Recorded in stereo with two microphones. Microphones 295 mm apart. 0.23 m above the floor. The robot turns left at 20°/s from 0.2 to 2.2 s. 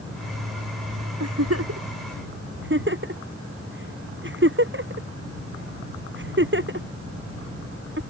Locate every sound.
1.2 s a giggle: 65° right (ahead or behind); by 8.0 s 45° right (ahead or behind)